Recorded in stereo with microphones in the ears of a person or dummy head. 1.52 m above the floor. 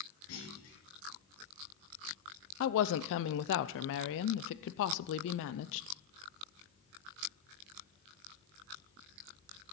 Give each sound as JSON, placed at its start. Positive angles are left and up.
{"t": 0.3, "sound": "a clunk", "side_deg": 75, "distance_m": 4.5}
{"t": 2.6, "sound": "a woman speaking", "side_deg": 70, "distance_m": 0.6}